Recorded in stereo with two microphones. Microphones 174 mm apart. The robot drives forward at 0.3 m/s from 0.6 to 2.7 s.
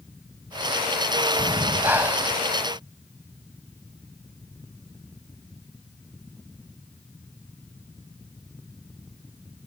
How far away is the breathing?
About 1.3 m.